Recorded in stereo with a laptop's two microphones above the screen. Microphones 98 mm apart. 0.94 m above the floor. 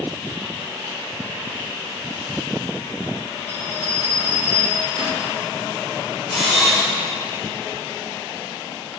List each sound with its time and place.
3.5 s a bell: 70° right (ahead or behind), 2 m
6.3 s a camera shutter: 80° right, 2.5 m